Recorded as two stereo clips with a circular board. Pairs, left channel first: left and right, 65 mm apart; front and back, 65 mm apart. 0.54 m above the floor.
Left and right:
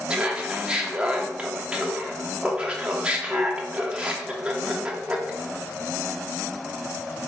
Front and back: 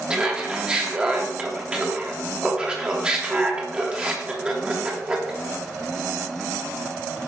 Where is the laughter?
130° right, 0.8 m.